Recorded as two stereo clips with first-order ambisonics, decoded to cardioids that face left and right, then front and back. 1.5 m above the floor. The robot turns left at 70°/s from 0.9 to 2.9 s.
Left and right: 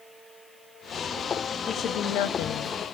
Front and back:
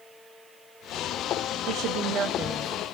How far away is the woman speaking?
About 0.7 m.